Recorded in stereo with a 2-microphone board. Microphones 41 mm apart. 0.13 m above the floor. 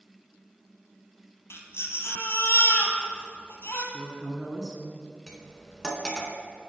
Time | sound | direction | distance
1.5 | a baby crying | 70° left (ahead or behind) | 1.1 m
3.9 | a woman speaking | centre (ahead or behind) | 1.1 m
5.3 | cutlery clinking | 15° left (ahead or behind) | 0.6 m